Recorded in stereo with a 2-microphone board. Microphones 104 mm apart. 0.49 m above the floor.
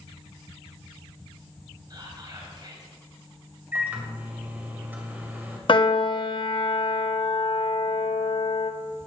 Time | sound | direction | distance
1.9 | whispering | 45° right (ahead or behind) | 3 m
3.7 | a microwave | 20° right (ahead or behind) | 2 m
5.7 | a piano | 50° left (ahead or behind) | 0.6 m